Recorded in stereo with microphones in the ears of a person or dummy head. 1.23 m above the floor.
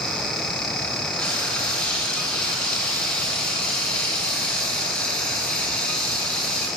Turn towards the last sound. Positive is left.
turn(degrees=5)  # may be behind; listen again after turning